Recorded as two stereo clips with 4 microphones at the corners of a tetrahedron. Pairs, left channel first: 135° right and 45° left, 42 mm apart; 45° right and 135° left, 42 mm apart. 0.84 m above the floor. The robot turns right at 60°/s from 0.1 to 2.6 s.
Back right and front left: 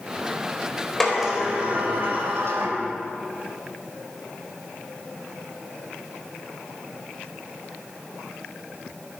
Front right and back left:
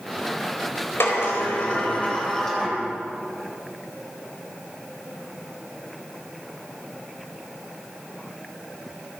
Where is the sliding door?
50° right, 4 m; by 2.8 s 45° left, 4 m.